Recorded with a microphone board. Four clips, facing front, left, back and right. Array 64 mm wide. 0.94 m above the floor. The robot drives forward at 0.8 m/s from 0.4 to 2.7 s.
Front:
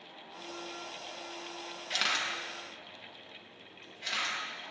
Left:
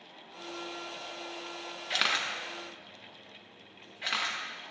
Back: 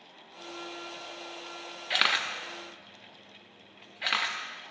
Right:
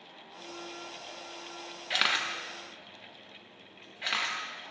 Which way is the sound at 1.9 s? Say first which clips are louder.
Right 1 dB, back 5 dB; 165° right.